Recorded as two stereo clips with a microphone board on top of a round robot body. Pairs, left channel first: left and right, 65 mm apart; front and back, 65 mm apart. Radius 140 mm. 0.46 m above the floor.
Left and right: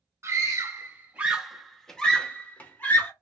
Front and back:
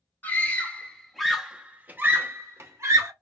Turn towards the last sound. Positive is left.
turn(degrees=145)